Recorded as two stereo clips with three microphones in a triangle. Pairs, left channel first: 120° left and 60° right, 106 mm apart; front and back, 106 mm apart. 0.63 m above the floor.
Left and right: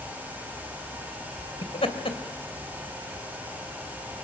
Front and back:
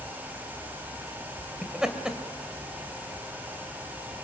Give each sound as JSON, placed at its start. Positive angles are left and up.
{"t": 1.6, "sound": "laughter", "azimuth_deg": 95, "distance_m": 2.5}